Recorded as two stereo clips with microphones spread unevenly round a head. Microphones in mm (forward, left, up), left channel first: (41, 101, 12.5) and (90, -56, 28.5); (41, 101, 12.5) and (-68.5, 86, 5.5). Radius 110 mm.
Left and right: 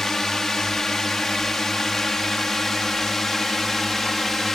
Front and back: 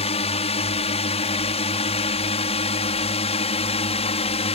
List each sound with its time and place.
0.0 s a drone: 20° left